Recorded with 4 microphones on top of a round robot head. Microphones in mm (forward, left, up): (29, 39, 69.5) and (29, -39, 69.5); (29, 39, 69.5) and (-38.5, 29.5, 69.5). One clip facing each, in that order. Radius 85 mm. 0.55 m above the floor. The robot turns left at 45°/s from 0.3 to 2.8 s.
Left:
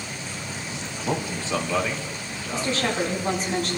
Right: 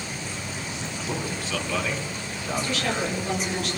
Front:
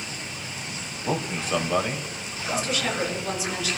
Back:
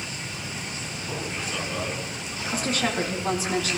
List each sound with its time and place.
1.0 s a man speaking: 45° left, 3 m; by 3.3 s 35° right, 3 m
2.5 s a woman speaking: 155° left, 6 m; by 3.8 s 145° left, 6 m